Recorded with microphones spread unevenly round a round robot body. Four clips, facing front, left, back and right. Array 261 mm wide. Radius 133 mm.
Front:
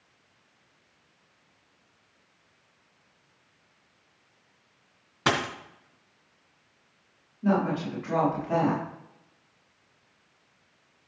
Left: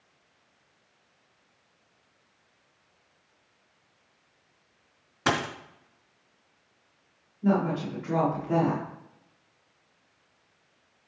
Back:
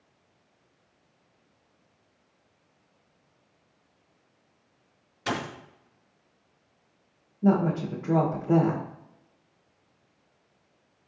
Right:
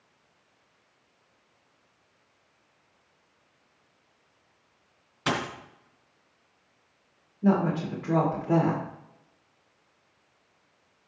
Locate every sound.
5.3 s a dropped coin: 30° left, 3 m
7.4 s a woman speaking: 155° right, 2.5 m